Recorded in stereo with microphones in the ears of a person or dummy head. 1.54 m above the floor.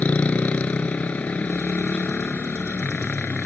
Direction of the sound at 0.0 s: 10° left (ahead or behind).